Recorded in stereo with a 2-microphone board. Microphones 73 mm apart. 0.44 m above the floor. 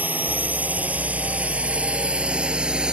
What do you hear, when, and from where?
0.0 s a drone: 25° right (ahead or behind); by 2.9 s 10° right (ahead or behind)